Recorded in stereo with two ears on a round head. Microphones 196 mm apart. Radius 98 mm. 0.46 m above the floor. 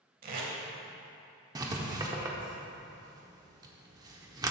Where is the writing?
15° right (ahead or behind), 0.9 m.